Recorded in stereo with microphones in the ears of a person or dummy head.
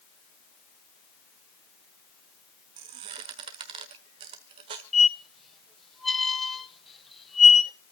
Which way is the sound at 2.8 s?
25° right (ahead or behind).